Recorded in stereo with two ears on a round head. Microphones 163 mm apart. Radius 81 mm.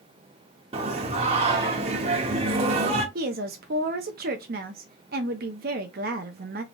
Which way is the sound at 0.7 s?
35° right (ahead or behind).